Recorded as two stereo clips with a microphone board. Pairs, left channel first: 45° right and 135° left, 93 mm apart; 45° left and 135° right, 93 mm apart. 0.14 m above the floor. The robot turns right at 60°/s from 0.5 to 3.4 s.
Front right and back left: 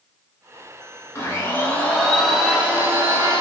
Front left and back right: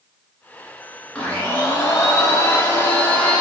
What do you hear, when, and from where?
1.1 s a blender: 20° right, 1.0 m; by 3.4 s 115° left, 1.0 m